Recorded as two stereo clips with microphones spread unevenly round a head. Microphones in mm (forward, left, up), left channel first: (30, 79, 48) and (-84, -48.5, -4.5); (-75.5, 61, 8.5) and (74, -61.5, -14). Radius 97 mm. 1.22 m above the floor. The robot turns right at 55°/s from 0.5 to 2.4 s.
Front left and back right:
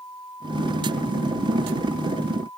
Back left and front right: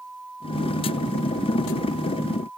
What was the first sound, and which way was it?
Only background noise.